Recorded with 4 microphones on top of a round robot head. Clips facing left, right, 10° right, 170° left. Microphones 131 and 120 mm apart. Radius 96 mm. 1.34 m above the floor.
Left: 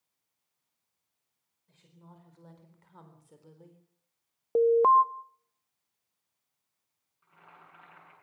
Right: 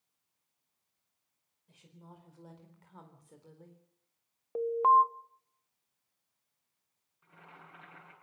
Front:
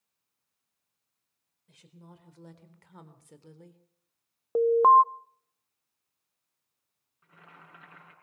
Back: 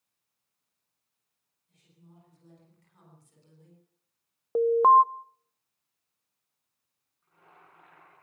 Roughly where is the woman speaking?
Ahead.